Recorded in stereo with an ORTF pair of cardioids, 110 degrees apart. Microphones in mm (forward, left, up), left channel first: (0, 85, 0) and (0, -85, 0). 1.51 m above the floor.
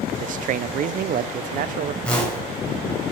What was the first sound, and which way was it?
A man speaking, 50° right.